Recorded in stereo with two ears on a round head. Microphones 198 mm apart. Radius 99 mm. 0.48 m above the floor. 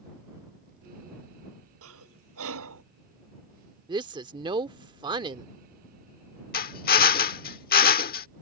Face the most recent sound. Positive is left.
turn(degrees=45)  # may be behind; listen again after turning